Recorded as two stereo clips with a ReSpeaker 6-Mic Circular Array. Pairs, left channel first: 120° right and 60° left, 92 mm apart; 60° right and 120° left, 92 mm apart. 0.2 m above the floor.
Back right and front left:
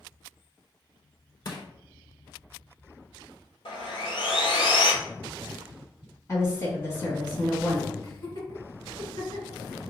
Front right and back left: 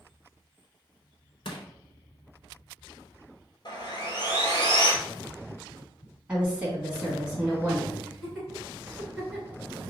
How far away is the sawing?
About 1.0 m.